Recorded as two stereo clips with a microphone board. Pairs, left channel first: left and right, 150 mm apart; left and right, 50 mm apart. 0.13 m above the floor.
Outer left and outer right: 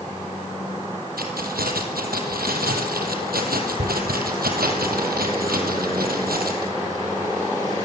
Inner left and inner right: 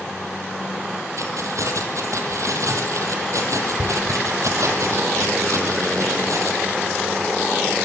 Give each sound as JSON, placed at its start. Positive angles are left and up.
{"t": 1.2, "sound": "keys jangling", "side_deg": -70, "distance_m": 3.5}